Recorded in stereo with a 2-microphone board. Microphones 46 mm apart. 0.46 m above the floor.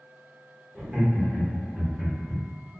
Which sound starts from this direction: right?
Laughter, at 0.8 s.